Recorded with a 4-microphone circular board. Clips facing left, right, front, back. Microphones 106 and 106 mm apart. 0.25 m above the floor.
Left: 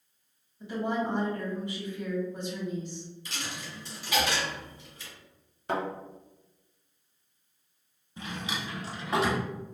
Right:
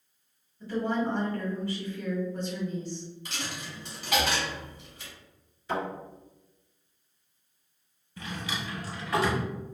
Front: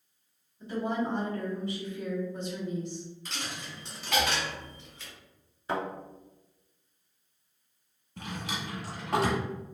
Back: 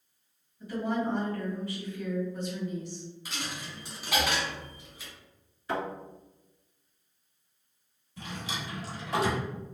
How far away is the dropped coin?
About 1.1 m.